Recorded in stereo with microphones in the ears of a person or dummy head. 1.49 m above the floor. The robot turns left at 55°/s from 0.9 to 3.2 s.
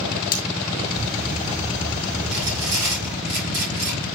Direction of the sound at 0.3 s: 50° left (ahead or behind).